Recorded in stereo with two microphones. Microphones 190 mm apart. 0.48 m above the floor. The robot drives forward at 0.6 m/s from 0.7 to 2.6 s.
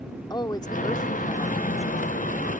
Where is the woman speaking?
20° left (ahead or behind); by 2.2 s 15° left (ahead or behind).